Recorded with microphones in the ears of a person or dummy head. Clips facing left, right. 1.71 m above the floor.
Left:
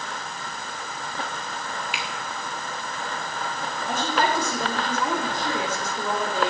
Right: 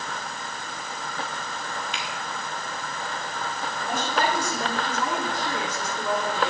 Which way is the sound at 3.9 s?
65° left (ahead or behind).